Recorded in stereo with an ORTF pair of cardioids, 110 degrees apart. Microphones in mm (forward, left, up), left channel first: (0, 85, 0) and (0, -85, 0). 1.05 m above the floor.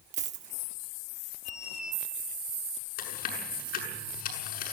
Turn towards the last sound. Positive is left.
turn(degrees=65)